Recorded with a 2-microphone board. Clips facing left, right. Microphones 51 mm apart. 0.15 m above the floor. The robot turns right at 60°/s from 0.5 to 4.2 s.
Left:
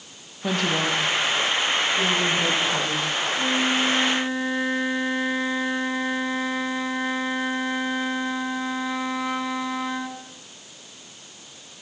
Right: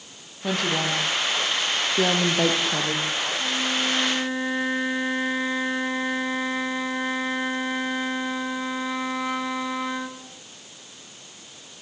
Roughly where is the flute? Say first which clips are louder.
Left 6 dB; behind left.